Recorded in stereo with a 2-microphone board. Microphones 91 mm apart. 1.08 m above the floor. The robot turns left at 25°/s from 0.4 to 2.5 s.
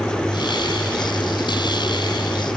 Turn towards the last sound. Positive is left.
No sound to turn to.